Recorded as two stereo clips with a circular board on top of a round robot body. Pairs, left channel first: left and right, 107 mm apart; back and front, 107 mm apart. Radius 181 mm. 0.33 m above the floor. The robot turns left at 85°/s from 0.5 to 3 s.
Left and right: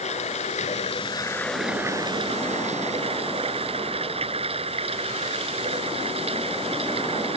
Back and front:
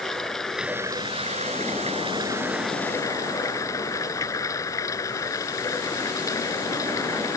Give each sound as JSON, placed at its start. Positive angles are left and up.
{"t": 0.0, "sound": "running water", "azimuth_deg": 95}